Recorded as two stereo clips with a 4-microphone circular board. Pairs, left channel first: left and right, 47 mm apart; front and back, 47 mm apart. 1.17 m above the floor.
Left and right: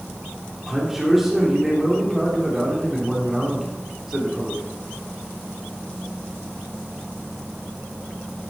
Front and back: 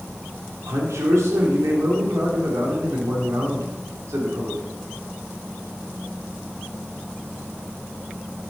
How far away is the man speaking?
About 3 m.